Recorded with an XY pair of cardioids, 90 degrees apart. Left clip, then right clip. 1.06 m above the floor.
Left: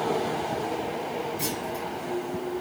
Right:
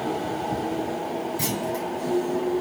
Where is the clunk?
65° right, 2 m.